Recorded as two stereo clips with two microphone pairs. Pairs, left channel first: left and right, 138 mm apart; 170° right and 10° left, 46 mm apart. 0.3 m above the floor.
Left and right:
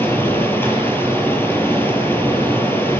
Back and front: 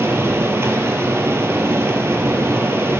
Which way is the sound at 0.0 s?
15° left.